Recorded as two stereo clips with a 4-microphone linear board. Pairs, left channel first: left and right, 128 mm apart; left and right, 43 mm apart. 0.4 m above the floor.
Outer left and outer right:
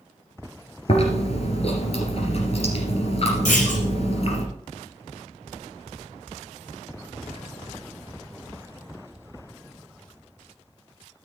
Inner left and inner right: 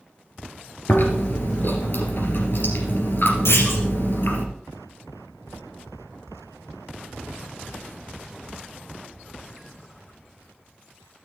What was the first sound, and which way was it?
Chewing, 50° left (ahead or behind).